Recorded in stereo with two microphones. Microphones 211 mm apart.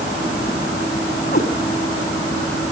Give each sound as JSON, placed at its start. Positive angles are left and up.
{"t": 1.3, "sound": "a cat meowing", "side_deg": 45, "distance_m": 1.7}